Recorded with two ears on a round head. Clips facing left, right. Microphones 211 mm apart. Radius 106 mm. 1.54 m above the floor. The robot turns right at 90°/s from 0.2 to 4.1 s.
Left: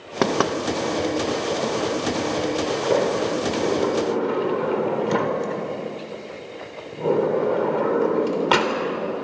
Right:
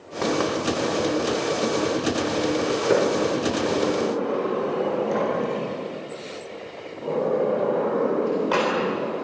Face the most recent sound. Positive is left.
turn(degrees=75)  # may be behind; listen again after turning